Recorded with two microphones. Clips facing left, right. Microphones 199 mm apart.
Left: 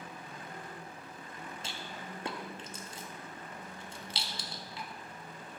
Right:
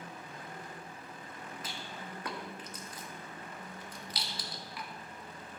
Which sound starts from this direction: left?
A rattle, at 1.6 s.